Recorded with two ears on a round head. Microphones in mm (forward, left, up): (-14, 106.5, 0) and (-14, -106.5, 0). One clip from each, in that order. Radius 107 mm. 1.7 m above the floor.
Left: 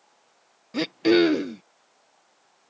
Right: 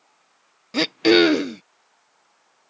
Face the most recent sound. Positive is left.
turn(degrees=-35)  # may be behind; listen again after turning